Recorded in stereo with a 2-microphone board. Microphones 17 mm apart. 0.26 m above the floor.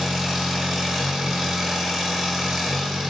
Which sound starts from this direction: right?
An engine running, at 0.0 s.